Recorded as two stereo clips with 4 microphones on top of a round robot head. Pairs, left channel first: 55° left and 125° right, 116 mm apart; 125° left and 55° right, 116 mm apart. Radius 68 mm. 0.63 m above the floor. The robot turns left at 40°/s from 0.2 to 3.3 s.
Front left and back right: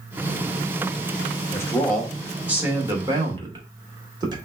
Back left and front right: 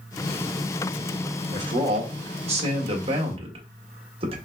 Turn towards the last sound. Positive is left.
turn(degrees=-80)